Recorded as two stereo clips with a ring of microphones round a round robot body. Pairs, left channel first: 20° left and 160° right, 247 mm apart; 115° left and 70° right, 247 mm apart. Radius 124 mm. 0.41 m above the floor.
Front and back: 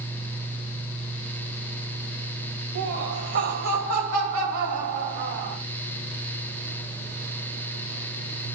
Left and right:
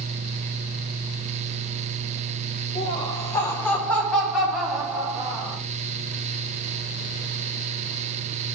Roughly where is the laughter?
Behind.